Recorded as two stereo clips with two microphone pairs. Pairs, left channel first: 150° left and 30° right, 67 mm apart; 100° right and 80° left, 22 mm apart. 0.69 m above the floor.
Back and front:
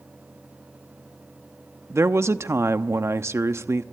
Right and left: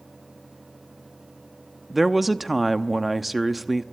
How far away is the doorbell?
I don't hear a doorbell.